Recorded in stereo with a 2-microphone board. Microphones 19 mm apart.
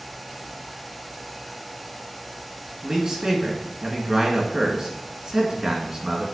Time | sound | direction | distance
2.8 | a man speaking | 35° right (ahead or behind) | 1.9 m